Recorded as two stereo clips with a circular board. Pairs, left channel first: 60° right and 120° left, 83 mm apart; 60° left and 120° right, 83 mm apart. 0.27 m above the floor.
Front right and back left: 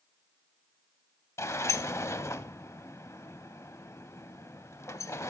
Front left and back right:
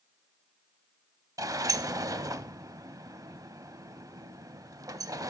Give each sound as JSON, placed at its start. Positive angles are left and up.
{"t": 1.4, "sound": "a sliding door", "azimuth_deg": -100, "distance_m": 0.5}